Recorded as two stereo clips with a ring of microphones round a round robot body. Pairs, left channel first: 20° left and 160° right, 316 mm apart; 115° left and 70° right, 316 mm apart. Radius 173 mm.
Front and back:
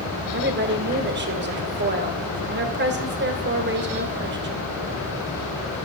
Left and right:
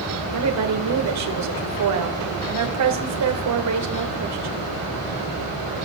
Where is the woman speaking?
100° right, 2.5 m.